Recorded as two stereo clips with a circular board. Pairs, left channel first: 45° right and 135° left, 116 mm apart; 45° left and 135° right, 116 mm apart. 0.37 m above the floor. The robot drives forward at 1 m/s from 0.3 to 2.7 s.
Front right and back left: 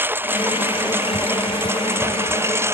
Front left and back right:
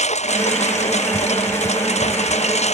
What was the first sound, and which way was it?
A lawn mower, 60° left.